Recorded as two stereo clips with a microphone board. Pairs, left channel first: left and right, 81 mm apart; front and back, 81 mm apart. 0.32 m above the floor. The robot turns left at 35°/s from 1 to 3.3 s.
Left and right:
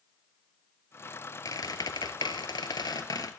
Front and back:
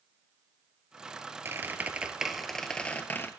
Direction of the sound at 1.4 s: 125° left.